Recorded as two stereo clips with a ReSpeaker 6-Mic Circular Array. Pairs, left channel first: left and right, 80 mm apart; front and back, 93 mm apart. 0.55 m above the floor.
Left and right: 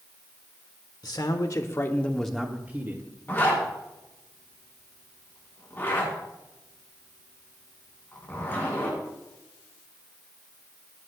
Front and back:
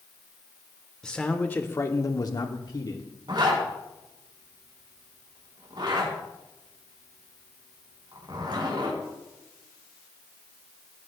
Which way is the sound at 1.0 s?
80° left.